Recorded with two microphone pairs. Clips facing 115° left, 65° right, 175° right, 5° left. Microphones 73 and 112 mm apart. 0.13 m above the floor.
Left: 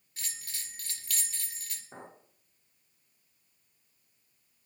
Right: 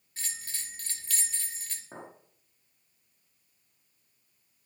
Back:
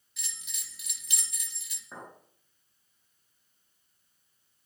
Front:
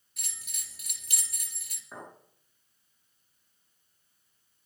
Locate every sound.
0.2 s a bell: 15° right, 2 m
1.9 s a clink: 95° right, 7.5 m